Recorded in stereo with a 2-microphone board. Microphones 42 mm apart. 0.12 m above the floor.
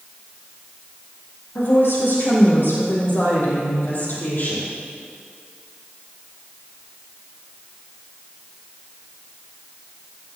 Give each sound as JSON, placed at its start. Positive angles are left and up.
{"t": 1.6, "sound": "a woman speaking", "side_deg": 70, "distance_m": 5.5}